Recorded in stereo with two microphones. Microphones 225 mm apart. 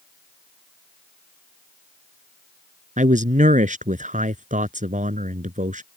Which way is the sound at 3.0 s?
35° right (ahead or behind).